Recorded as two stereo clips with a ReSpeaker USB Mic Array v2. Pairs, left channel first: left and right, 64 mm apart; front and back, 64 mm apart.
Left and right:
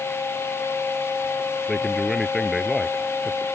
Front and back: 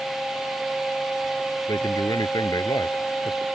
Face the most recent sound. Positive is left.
turn(degrees=5)